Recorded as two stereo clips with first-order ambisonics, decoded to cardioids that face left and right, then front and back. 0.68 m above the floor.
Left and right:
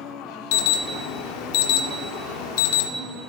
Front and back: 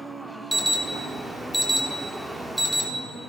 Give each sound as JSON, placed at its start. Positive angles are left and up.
{"t": 0.5, "sound": "an alarm", "azimuth_deg": 90, "distance_m": 0.9}